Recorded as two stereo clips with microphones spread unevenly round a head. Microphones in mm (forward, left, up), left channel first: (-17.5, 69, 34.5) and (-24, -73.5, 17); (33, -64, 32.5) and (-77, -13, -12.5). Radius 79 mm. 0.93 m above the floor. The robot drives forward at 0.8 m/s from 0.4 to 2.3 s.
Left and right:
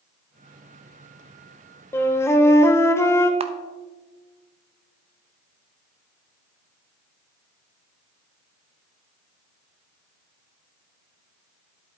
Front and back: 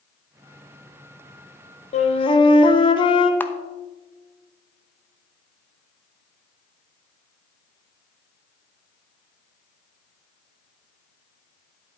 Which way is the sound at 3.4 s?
115° right.